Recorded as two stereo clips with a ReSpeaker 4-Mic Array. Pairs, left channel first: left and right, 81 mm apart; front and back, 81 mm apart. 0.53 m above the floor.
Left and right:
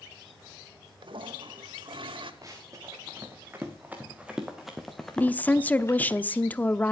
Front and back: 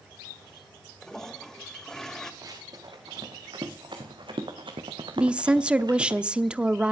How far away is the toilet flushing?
About 1.1 m.